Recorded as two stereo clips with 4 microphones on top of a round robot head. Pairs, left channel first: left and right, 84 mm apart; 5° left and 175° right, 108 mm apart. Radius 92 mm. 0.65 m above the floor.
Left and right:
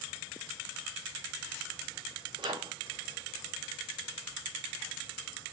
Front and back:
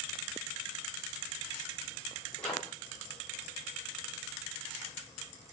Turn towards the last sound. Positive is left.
turn(degrees=-80)